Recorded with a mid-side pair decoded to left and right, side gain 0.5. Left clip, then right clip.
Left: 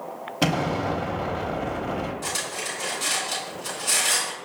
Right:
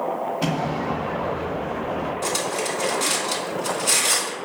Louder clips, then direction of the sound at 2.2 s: Right 5 dB; 30° right.